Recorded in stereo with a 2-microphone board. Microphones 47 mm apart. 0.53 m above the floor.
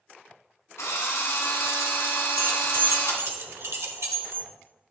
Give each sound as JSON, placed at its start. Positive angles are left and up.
{"t": 0.8, "sound": "a drill", "side_deg": 80, "distance_m": 2.0}
{"t": 2.4, "sound": "keys jangling", "side_deg": -65, "distance_m": 1.1}